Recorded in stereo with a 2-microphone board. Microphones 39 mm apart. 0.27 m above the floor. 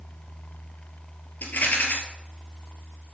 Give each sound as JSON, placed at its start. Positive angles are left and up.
{"t": 1.4, "sound": "a rattle", "side_deg": 55, "distance_m": 2.5}